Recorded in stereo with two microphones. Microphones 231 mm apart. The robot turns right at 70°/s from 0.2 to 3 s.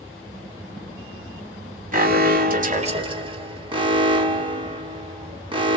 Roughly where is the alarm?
Right.